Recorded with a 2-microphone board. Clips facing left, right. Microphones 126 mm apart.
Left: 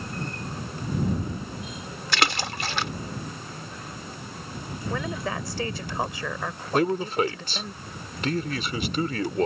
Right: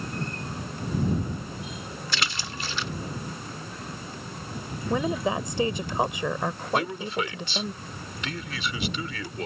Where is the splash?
75° left (ahead or behind).